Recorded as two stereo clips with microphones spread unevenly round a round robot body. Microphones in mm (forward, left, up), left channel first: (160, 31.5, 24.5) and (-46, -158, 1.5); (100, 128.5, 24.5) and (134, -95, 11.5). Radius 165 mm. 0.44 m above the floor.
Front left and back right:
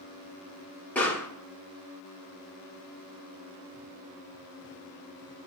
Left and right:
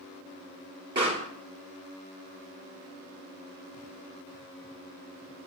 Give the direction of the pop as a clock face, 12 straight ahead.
1 o'clock.